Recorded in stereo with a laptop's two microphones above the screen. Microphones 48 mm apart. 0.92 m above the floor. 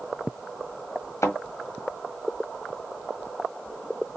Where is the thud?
70° left (ahead or behind), 1.5 m.